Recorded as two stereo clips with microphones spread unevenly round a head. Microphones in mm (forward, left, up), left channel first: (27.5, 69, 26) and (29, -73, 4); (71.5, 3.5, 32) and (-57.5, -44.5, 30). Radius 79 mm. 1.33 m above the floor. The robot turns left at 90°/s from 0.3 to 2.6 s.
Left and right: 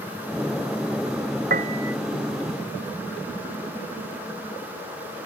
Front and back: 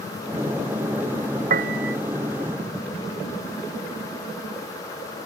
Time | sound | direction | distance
1.5 | a piano | 130° right | ?